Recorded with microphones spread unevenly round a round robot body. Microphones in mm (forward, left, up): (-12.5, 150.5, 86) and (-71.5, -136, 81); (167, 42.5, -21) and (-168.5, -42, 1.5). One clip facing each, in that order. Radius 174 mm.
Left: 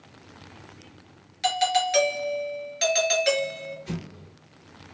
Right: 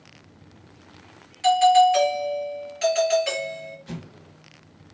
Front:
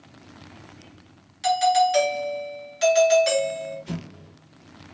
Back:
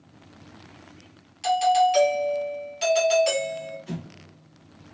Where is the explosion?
75° left, 2 m.